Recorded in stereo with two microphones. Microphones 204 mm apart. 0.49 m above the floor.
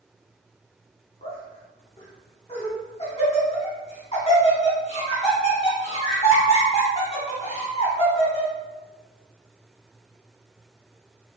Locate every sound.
1.2 s laughter: 30° left (ahead or behind), 1.0 m